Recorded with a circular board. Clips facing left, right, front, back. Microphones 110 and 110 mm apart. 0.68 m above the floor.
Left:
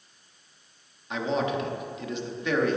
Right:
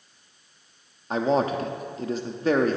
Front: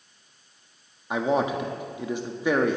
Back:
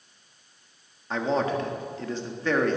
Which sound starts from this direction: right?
A man speaking, at 1.1 s.